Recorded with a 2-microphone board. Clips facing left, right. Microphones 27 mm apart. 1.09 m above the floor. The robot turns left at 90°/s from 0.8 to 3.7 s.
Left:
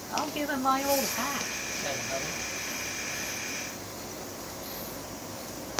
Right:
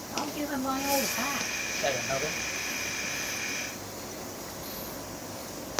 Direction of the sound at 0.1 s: 55° left.